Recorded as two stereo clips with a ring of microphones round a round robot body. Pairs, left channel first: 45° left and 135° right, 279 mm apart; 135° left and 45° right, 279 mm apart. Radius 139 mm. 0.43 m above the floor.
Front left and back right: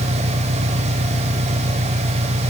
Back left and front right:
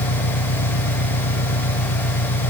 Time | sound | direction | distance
0.0 | an engine running | 160° left | ?